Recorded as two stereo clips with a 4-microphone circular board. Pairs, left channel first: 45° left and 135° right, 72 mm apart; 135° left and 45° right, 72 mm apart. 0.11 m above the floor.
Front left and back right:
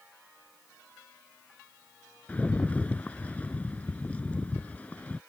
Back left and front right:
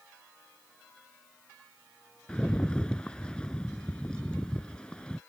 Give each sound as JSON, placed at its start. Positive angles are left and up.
{"t": 2.3, "sound": "a rattle", "azimuth_deg": 80}